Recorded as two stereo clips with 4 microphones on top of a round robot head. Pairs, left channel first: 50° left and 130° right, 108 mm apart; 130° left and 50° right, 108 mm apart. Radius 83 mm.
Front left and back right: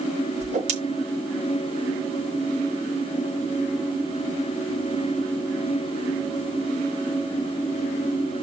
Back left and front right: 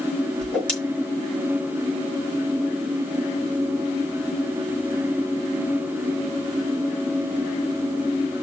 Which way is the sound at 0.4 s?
150° right.